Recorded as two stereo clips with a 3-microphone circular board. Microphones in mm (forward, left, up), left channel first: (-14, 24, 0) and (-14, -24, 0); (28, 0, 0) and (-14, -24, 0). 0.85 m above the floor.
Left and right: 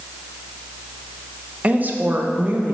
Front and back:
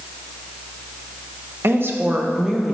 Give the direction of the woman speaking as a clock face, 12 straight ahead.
5 o'clock.